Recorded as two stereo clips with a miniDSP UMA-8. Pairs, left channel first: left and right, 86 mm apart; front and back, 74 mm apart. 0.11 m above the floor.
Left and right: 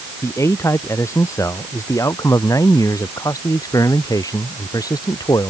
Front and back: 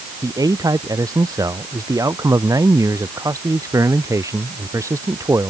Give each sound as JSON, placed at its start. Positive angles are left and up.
{"t": 0.2, "sound": "a man speaking", "azimuth_deg": 145}